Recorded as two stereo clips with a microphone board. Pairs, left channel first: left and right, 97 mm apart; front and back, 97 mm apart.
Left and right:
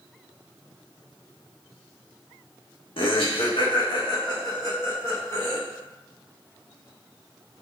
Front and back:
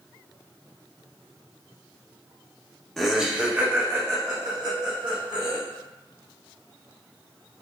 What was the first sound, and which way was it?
Laughter, 90° left.